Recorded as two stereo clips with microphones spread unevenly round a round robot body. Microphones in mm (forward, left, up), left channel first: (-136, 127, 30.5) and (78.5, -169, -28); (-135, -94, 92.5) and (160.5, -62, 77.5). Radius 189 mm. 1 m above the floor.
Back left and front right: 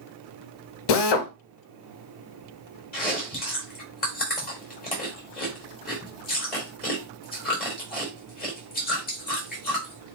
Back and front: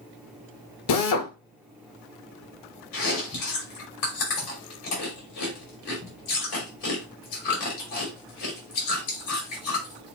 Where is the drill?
150° left, 0.8 m.